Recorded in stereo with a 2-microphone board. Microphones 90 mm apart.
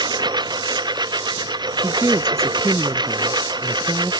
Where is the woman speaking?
30° right (ahead or behind).